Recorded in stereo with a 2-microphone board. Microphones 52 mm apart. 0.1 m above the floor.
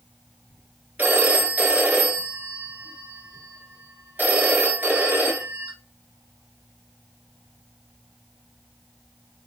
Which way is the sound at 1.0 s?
30° right (ahead or behind).